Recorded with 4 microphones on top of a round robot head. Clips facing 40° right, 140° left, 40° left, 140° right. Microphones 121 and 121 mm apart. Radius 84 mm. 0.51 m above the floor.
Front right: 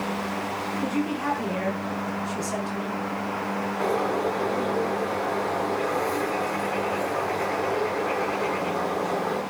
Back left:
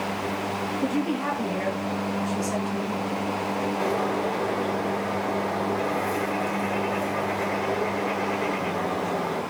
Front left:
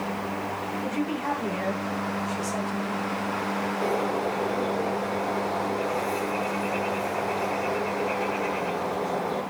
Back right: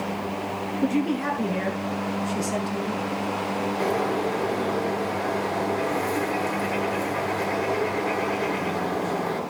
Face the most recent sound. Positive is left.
turn(degrees=-140)